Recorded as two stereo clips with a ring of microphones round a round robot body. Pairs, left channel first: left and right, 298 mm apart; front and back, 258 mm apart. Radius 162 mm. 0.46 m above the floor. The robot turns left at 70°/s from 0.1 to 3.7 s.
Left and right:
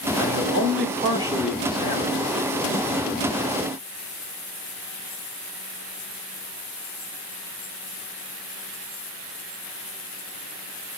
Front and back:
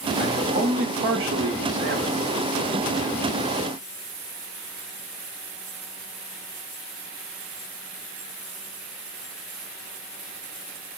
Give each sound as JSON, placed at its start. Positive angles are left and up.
{"t": 0.2, "sound": "a man speaking", "azimuth_deg": -90, "distance_m": 1.2}